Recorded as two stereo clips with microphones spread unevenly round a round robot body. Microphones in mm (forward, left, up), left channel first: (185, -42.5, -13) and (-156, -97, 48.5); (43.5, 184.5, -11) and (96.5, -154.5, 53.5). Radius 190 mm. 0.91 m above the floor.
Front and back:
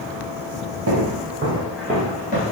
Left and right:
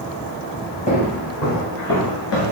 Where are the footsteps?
175° left, 1.2 m; by 2.5 s 65° left, 1.0 m.